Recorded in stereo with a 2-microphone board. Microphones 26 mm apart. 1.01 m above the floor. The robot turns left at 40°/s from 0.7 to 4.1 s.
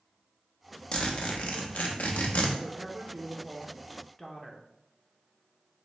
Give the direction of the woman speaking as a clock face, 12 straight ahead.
4 o'clock.